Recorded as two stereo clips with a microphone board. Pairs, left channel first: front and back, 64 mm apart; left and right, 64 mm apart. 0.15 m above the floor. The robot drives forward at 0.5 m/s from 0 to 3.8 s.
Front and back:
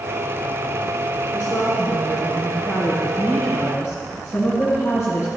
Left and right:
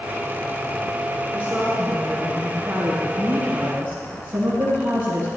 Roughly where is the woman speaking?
Ahead right.